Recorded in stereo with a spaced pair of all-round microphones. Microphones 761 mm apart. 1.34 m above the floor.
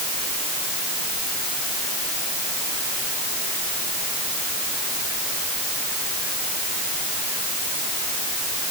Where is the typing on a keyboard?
I don't hear typing on a keyboard.